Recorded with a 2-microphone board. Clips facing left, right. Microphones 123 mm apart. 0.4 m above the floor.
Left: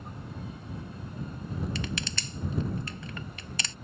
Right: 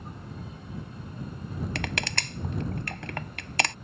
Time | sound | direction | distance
1.8 | crushing | 55° right (ahead or behind) | ?